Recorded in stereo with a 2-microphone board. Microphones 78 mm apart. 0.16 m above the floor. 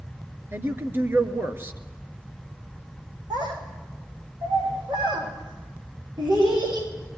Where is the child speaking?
60° right (ahead or behind), 7.5 m.